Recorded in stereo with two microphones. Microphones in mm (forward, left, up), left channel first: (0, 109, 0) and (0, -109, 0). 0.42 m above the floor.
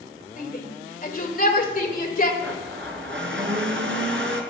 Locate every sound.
0.4 s a shout: 45° left (ahead or behind), 1.8 m
2.4 s a blender: 75° right (ahead or behind), 1.5 m